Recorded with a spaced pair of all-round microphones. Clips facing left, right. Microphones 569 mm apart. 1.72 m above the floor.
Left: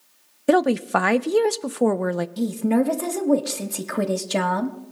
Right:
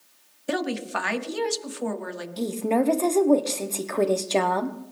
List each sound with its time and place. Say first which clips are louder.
0.5 s a woman speaking: left 9 dB; 75° left (ahead or behind), 0.6 m
2.4 s a woman speaking: left 2 dB; 40° left (ahead or behind), 1.1 m